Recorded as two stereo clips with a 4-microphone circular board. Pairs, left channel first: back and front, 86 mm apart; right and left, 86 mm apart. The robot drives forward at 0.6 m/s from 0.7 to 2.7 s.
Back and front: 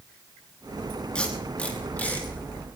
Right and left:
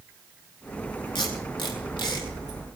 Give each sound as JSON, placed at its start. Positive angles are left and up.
{"t": 1.1, "sound": "tape being pulled", "azimuth_deg": -100, "distance_m": 5.0}